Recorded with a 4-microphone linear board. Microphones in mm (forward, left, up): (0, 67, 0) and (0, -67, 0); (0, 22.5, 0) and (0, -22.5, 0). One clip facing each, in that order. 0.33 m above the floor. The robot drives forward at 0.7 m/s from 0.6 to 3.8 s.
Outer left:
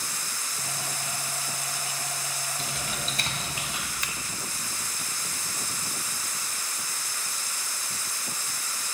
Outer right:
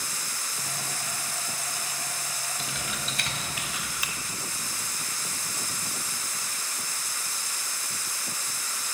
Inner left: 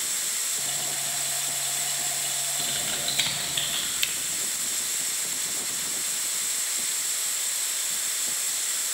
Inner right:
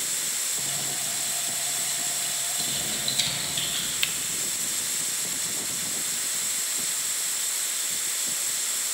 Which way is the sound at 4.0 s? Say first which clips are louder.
Even, inner right 2 dB; 10° right (ahead or behind).